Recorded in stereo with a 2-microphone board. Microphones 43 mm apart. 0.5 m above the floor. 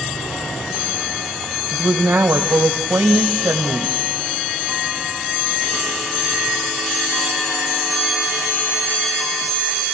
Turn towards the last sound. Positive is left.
turn(degrees=-65)  # may be behind; listen again after turning